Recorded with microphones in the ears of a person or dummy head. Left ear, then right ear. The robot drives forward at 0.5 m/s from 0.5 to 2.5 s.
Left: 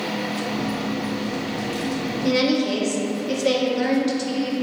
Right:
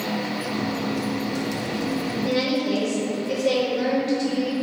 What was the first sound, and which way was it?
A woman speaking, 60° left (ahead or behind).